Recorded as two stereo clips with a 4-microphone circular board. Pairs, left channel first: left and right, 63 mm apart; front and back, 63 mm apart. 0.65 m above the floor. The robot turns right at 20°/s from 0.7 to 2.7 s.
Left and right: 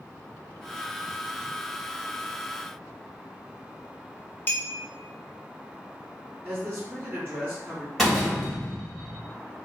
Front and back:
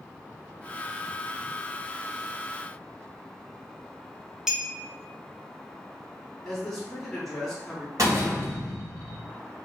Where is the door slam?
175° left, 1.2 m.